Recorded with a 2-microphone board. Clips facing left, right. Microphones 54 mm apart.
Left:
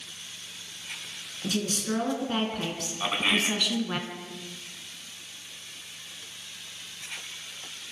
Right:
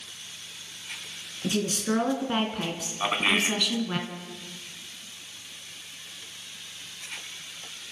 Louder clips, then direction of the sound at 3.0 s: Right 2 dB; 20° right (ahead or behind).